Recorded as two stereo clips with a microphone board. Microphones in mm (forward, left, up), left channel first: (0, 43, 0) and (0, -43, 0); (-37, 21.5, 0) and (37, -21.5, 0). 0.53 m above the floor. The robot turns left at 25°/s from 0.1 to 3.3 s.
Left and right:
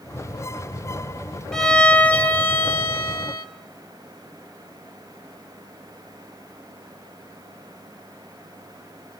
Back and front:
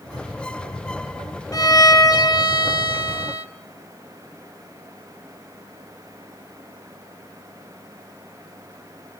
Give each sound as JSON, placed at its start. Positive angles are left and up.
{"t": 1.5, "sound": "a violin", "azimuth_deg": 170, "distance_m": 1.5}